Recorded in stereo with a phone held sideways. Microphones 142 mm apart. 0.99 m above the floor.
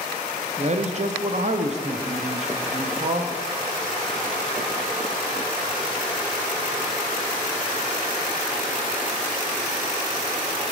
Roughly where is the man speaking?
Right.